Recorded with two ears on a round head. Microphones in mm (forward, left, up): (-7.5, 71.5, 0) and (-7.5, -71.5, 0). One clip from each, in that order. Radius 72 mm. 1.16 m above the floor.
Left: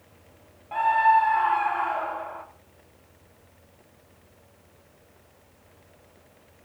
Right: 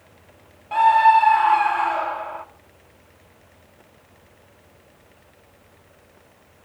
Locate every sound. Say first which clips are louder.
0.7 s a scream: right 6 dB; 70° right (ahead or behind), 2 m